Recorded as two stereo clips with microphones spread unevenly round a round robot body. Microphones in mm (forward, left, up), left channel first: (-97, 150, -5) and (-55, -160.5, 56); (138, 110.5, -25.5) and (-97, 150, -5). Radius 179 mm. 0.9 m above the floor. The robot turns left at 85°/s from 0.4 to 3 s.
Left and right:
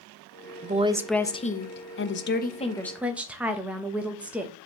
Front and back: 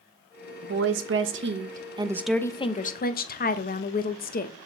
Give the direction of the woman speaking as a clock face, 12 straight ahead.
5 o'clock.